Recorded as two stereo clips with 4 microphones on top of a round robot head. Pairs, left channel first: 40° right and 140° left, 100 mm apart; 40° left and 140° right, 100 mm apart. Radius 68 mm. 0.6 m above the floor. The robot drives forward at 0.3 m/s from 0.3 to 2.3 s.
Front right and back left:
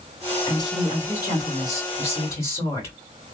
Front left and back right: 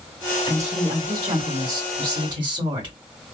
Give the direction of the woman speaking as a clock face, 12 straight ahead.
3 o'clock.